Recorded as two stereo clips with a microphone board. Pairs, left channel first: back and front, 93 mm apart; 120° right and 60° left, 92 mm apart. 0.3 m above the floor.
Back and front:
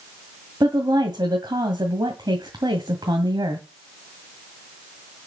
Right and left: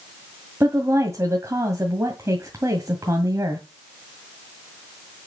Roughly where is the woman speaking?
Ahead.